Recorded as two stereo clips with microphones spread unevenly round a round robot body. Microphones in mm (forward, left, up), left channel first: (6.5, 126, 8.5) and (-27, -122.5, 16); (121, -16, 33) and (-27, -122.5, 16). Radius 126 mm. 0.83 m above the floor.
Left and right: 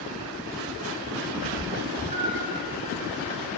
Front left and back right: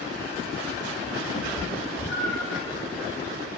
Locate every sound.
1.3 s a cat meowing: 15° right, 1.3 m; by 2.6 s 50° right, 0.9 m